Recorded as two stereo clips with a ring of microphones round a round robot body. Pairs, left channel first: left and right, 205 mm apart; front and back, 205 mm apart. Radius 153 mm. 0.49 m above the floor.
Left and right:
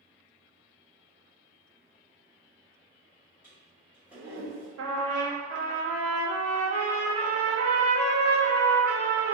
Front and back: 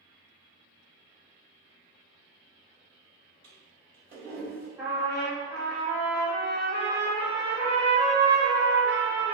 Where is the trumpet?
95° right, 0.6 m.